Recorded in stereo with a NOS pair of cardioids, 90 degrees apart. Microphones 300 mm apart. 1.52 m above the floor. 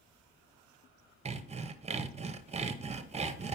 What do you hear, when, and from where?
1.2 s sawing: 20° right, 0.6 m